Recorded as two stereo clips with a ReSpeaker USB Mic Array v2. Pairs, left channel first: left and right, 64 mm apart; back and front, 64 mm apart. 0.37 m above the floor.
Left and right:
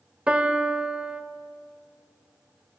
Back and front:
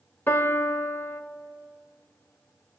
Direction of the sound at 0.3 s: 150° right.